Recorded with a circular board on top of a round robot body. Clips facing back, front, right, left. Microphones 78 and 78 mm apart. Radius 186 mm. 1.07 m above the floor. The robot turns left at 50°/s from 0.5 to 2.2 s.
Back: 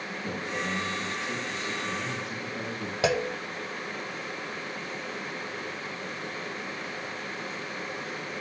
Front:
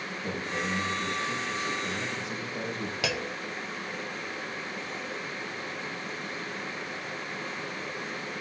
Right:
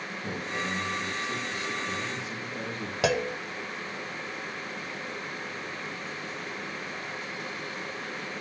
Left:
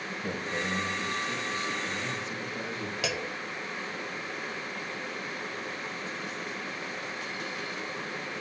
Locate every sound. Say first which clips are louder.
0.1 s a man speaking: even, left 2 dB; 80° left, 6.5 m; by 2.9 s 5° right, 6.5 m
3.0 s a clunk: back 8 dB, right 10 dB; 125° right, 1.0 m